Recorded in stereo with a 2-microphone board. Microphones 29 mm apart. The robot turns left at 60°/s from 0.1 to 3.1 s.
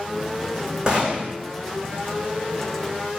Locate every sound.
0.9 s a gunshot: 30° right (ahead or behind), 3.5 m; by 1.3 s 60° right (ahead or behind), 3.5 m